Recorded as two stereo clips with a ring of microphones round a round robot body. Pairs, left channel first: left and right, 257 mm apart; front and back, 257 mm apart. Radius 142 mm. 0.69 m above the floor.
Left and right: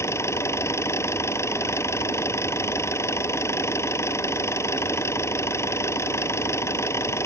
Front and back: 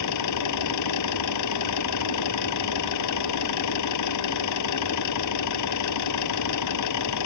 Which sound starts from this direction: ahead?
An engine running, at 0.0 s.